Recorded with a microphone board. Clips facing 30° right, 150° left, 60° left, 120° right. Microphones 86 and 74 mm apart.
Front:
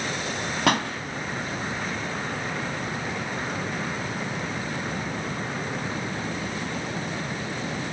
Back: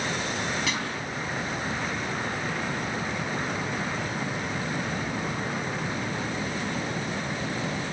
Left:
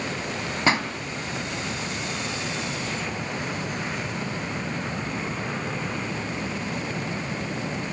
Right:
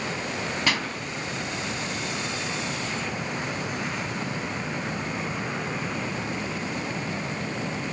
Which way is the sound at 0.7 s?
Straight ahead.